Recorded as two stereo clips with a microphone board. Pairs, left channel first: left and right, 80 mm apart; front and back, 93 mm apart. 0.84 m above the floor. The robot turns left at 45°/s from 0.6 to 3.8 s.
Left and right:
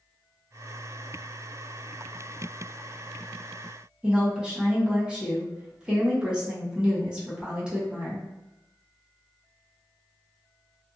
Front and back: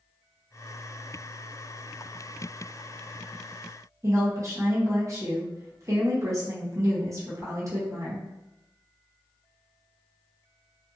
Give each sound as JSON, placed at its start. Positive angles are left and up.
{"t": 4.0, "sound": "a woman speaking", "azimuth_deg": -160, "distance_m": 0.8}